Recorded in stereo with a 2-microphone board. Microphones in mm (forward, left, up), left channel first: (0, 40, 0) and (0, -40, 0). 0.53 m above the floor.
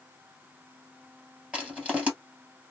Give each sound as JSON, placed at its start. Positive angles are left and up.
{"t": 1.5, "sound": "crushing", "side_deg": -15, "distance_m": 1.7}